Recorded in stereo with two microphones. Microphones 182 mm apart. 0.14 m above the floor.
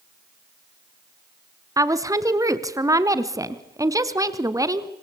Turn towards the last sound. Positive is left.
turn(degrees=-20)  # may be behind; listen again after turning